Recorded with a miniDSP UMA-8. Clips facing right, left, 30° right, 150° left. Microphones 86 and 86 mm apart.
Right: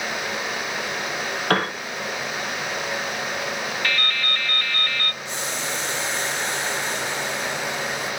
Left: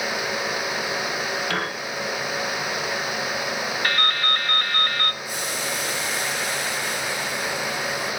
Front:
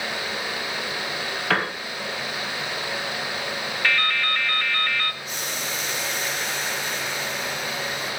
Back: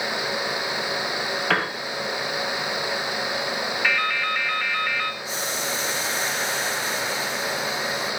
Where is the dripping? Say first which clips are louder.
Left 4 dB, front 1 dB; 75° left, 0.7 m.